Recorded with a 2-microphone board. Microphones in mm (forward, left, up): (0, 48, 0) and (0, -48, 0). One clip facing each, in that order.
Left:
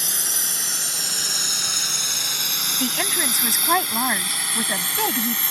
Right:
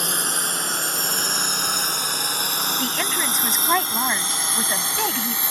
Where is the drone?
55° right (ahead or behind); by 5.5 s 15° right (ahead or behind).